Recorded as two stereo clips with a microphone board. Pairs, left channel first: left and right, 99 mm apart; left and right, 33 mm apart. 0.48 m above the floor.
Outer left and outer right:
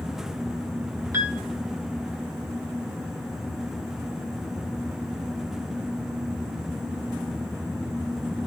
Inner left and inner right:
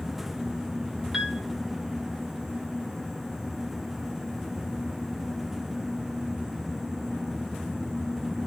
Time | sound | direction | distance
1.1 | a piano | 25° right (ahead or behind) | 1.3 m